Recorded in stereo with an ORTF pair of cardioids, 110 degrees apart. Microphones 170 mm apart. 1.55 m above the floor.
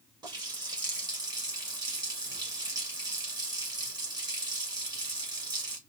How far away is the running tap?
About 1.7 m.